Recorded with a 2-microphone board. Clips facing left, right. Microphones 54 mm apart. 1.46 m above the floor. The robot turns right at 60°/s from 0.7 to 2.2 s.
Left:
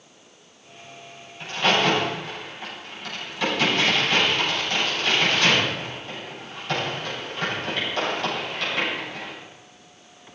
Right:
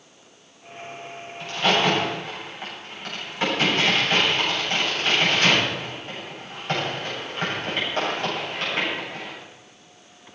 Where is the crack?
15° left (ahead or behind), 8.5 m; by 9.3 s 35° right (ahead or behind), 8.5 m.